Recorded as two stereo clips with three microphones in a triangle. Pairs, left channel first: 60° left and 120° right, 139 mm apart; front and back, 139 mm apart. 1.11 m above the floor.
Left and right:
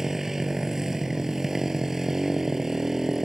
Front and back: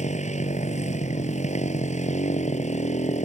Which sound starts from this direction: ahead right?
A motorcycle, at 0.0 s.